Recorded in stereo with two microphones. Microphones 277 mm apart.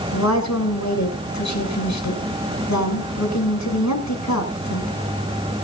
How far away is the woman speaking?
About 6.5 m.